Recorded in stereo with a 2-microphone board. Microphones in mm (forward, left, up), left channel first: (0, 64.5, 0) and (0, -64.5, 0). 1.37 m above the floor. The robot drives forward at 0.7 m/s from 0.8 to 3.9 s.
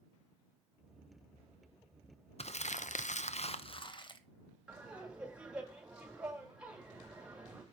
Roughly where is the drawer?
No drawer in this recording.